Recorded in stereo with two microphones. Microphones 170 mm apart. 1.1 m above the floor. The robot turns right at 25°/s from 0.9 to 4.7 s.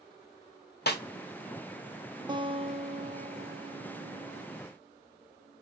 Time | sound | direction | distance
0.9 | a snare drum | 65° left (ahead or behind) | 0.8 m
2.3 | a guitar | 150° right | 0.9 m